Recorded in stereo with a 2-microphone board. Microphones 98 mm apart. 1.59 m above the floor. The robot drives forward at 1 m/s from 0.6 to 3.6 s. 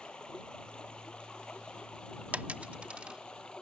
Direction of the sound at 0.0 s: 10° left (ahead or behind).